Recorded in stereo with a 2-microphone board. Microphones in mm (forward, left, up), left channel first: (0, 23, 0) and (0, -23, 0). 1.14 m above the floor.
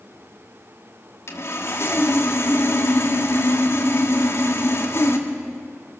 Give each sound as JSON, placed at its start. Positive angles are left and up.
{"t": 1.3, "sound": "sawing", "side_deg": 65, "distance_m": 2.0}